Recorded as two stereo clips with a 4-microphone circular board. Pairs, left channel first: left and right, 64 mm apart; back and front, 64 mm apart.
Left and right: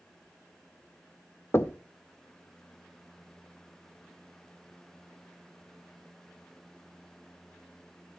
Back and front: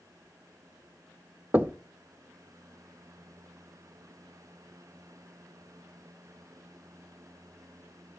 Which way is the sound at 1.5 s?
55° left.